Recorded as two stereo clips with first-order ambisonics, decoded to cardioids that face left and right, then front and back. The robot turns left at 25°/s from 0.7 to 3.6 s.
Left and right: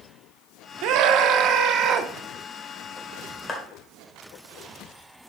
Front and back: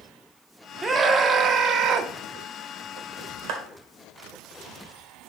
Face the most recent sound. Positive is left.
turn(degrees=165)